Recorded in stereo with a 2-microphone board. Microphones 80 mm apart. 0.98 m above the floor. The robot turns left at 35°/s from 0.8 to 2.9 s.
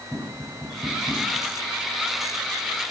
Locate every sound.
0.1 s tapping: 15° left (ahead or behind), 5 m; by 1.3 s 5° right (ahead or behind), 5 m